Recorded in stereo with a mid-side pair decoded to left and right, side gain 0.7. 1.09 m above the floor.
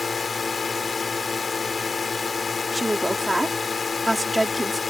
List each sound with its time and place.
0.0 s a drone: 20° left
2.7 s a woman speaking: 5° right